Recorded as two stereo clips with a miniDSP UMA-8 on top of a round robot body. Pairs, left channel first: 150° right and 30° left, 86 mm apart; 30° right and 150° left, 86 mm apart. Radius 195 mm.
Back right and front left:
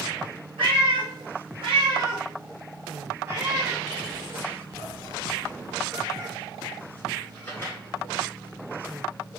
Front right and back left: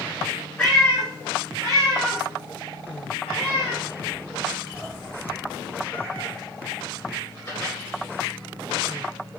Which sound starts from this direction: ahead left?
A cat meowing, at 0.6 s.